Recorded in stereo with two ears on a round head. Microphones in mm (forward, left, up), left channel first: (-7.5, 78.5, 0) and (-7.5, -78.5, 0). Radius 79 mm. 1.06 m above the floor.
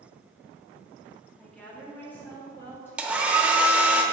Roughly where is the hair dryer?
Centre.